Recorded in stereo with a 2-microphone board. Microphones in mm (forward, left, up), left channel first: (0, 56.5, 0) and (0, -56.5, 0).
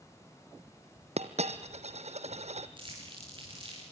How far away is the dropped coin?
About 1.2 m.